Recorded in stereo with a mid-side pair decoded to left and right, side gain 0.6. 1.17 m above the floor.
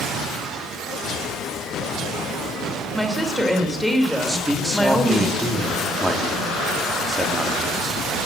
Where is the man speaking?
10° right, 2.5 m.